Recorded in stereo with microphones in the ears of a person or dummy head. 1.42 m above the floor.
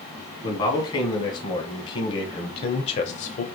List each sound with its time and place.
0.4 s a man speaking: 25° left (ahead or behind), 2.5 m; by 3.5 s 45° left (ahead or behind), 1.0 m